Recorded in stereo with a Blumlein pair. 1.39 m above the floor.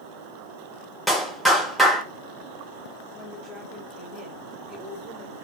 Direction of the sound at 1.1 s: Straight ahead.